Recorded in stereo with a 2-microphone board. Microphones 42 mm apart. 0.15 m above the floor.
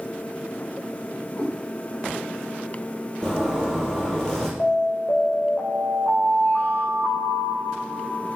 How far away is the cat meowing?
About 6.5 m.